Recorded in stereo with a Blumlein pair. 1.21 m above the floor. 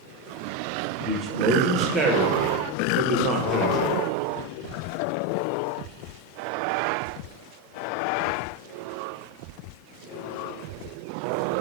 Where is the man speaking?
25° right, 0.8 m.